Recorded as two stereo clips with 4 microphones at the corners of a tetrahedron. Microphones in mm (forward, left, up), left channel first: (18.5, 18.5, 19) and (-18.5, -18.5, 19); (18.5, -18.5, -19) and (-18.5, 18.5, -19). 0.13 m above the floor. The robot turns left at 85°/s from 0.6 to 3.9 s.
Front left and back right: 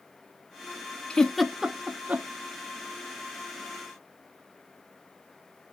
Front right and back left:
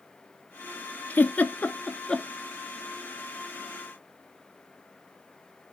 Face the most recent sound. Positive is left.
turn(degrees=100)